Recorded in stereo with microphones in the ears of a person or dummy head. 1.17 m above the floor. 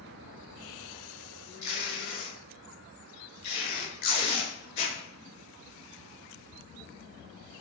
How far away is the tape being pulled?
About 1.7 m.